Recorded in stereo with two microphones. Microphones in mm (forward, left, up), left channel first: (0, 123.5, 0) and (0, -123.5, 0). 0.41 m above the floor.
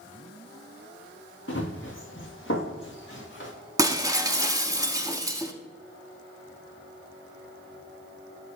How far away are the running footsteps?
About 1.6 m.